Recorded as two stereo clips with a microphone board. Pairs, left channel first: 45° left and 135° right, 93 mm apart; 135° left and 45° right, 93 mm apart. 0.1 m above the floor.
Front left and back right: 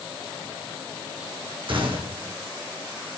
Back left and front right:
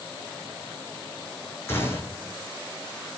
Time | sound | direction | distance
1.7 | a gunshot | 160° right | 2 m